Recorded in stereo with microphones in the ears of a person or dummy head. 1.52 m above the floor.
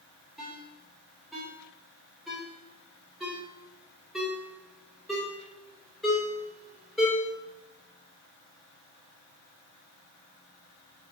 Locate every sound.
0.4 s a ringtone: centre (ahead or behind), 2.5 m